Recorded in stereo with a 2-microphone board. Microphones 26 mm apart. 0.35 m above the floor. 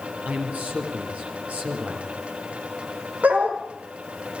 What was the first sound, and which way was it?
A man speaking, 75° right (ahead or behind).